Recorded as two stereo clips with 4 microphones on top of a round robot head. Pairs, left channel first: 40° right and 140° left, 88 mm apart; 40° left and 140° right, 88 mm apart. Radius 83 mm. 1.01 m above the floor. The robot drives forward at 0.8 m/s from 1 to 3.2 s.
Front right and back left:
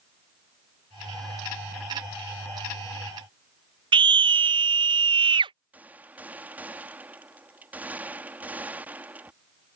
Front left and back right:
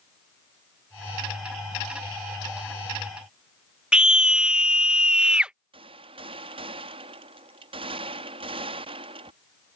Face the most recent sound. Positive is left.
turn(degrees=-150)